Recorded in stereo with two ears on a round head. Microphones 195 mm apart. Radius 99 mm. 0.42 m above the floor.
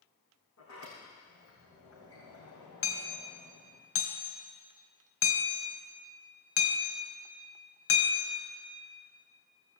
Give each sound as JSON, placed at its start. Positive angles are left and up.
{"t": 0.6, "sound": "a sliding door", "side_deg": 75, "distance_m": 6.0}
{"t": 2.8, "sound": "hammering", "side_deg": 70, "distance_m": 2.5}